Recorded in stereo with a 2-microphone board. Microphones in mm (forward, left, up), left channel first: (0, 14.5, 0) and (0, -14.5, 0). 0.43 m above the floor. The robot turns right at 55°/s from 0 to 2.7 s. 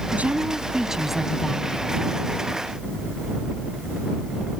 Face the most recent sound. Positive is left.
turn(degrees=80)